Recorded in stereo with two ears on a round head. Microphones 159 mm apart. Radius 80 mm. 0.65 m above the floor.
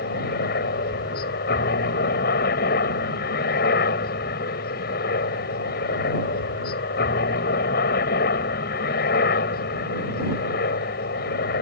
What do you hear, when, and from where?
0.0 s a helicopter: 60° left (ahead or behind)